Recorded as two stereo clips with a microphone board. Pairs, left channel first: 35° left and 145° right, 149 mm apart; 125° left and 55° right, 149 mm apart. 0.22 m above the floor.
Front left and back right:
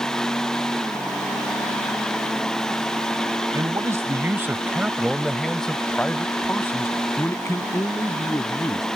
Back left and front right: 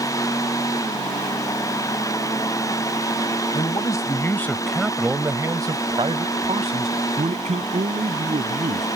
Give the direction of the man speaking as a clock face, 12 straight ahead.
7 o'clock.